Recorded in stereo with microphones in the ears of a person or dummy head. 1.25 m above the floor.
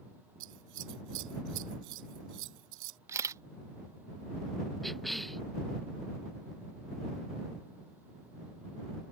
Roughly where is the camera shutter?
Centre.